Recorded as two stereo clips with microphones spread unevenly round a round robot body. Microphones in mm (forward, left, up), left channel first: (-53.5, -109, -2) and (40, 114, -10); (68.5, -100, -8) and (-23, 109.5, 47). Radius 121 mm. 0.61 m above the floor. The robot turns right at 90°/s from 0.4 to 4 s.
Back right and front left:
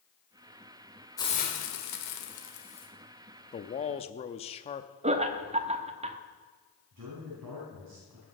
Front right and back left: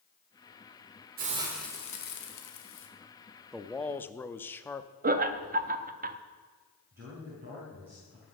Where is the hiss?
170° left, 1.6 m; by 2.9 s 35° right, 1.6 m.